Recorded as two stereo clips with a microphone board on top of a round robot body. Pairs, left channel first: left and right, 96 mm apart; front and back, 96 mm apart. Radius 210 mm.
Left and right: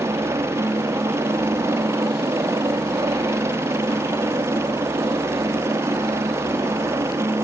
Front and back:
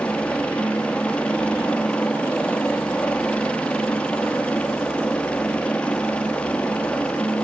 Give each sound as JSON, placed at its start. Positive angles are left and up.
{"t": 0.0, "sound": "a helicopter", "azimuth_deg": -65}